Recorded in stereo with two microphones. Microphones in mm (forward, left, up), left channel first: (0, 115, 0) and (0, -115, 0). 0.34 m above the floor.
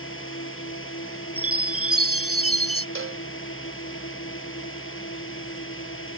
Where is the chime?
80° right.